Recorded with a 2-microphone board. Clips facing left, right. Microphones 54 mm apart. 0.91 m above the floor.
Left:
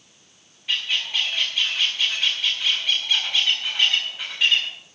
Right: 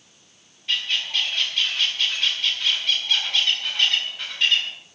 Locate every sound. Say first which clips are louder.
0.7 s a bird: even; 10° left (ahead or behind), 7 m